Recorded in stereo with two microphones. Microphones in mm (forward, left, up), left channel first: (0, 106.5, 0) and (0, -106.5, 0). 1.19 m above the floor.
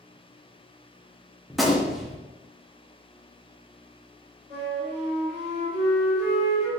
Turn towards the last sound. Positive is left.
turn(degrees=-35)  # may be behind; listen again after turning